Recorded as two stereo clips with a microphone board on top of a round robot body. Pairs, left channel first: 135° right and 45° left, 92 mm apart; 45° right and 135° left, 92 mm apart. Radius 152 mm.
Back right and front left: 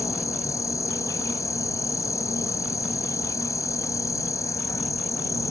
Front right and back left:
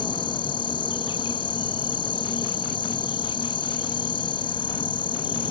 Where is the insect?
80° right.